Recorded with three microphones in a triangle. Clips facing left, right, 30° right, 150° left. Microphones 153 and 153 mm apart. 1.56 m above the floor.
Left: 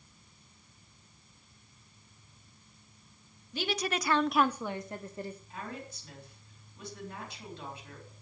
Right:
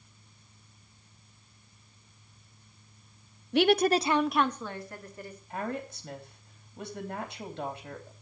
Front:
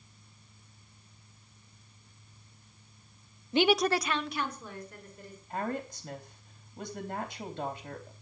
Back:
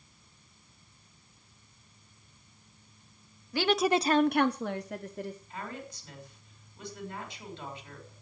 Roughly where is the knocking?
I don't hear knocking.